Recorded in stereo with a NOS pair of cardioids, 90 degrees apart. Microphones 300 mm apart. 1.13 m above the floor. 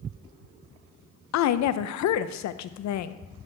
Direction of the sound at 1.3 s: 65° left.